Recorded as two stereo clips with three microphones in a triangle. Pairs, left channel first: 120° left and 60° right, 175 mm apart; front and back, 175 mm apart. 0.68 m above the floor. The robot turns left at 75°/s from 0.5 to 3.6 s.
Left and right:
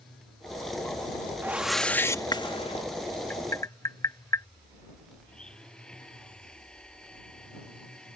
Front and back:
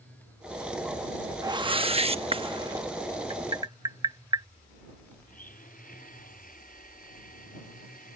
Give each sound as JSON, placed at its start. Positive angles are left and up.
{"t": 1.4, "sound": "a whoosh", "azimuth_deg": -130}
{"t": 3.3, "sound": "tapping", "azimuth_deg": -175}
{"t": 5.3, "sound": "a blender", "azimuth_deg": 35}